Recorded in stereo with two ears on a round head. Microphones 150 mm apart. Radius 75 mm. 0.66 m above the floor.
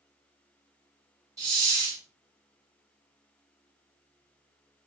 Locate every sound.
1.4 s a hiss: 20° right (ahead or behind), 1.3 m